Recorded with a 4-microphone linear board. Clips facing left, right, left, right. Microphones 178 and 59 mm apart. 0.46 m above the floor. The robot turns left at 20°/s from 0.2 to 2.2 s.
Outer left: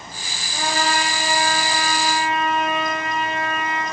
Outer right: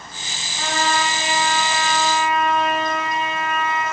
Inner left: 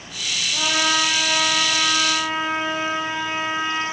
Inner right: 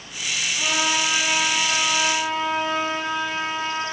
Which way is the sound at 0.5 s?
45° left.